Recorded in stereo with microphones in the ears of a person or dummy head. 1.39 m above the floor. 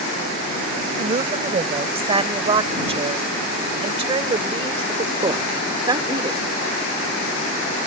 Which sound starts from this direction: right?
A woman speaking, at 1.0 s.